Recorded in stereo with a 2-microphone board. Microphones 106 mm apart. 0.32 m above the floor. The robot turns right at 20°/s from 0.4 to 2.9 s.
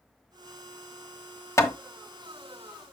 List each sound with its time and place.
1.6 s hammering: 25° left (ahead or behind), 1.0 m; by 1.8 s 30° left (ahead or behind), 1.0 m